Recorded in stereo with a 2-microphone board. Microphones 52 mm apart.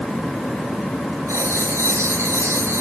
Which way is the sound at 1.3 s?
85° right.